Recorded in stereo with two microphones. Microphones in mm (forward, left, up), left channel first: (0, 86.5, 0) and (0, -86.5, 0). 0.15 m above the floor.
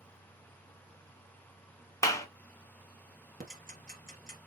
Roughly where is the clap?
Centre.